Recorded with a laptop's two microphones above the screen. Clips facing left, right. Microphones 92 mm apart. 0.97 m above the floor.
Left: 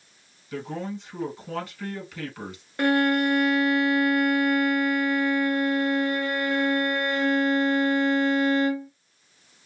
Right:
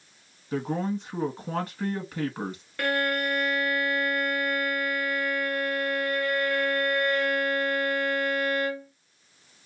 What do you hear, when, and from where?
0.5 s a man speaking: 40° right (ahead or behind), 1.8 m
2.8 s a violin: 25° left (ahead or behind), 0.9 m